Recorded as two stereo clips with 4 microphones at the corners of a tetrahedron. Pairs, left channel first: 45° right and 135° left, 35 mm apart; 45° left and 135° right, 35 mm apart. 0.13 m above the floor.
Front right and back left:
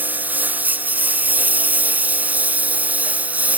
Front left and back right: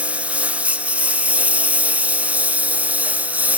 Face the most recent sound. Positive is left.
turn(degrees=180)